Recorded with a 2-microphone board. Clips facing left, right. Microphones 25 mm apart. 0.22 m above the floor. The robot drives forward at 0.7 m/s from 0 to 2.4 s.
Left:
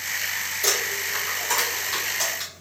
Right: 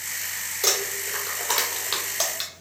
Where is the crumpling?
40° right (ahead or behind), 1.7 m; by 2.5 s 85° right, 1.1 m.